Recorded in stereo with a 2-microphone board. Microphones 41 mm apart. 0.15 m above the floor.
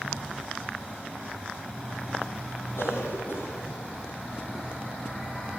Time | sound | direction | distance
2.8 | a cough | 80° left | 8.5 m